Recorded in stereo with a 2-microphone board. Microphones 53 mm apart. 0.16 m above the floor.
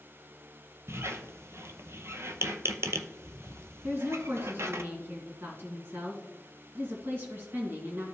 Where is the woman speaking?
45° right (ahead or behind), 2.5 m.